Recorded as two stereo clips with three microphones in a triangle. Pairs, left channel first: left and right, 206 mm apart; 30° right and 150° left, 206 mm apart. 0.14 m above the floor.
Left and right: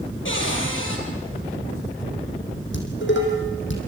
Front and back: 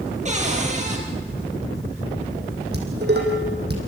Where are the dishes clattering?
115° left, 4.5 m.